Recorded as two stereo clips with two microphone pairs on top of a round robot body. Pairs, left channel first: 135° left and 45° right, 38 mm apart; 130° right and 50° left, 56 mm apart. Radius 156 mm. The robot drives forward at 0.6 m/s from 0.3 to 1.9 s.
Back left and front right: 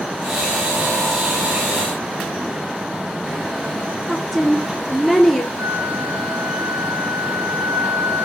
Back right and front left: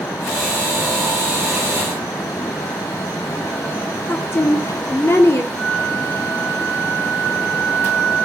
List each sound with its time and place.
4.1 s a woman speaking: 135° right, 1.4 m
5.6 s a flute: 40° right, 3.5 m